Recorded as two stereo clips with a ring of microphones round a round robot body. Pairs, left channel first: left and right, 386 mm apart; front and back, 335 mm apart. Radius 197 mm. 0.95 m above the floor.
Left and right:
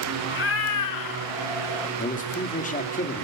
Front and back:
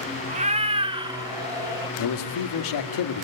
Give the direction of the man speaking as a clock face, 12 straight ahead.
11 o'clock.